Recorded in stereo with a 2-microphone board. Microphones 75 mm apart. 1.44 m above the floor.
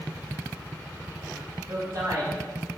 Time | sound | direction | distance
1.7 | a man speaking | 45° right (ahead or behind) | 2 m